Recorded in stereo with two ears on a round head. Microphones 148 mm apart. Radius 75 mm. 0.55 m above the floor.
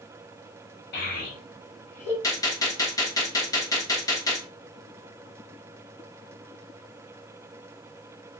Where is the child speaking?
65° left (ahead or behind), 2 m; by 2.1 s 40° left (ahead or behind), 1.4 m.